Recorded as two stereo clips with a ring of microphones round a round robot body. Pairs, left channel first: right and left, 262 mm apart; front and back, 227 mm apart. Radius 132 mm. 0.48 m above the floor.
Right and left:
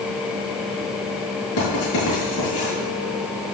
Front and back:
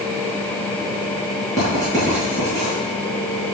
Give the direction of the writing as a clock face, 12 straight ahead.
3 o'clock.